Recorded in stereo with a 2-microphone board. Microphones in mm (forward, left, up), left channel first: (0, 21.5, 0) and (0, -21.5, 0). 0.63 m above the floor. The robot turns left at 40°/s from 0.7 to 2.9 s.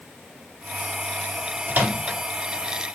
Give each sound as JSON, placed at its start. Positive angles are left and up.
{"t": 1.7, "sound": "a microwave", "side_deg": -40, "distance_m": 1.2}